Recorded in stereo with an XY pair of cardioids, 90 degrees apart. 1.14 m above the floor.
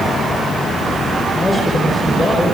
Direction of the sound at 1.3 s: 25° left.